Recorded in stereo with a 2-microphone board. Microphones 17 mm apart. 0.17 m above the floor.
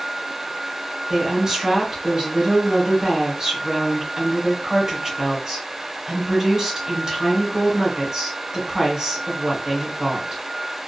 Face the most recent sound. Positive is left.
turn(degrees=-20)  # may be behind; listen again after turning